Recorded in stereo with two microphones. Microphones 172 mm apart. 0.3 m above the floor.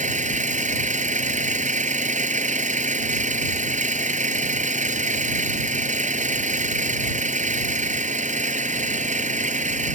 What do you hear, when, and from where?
0.0 s an engine running: 45° right (ahead or behind)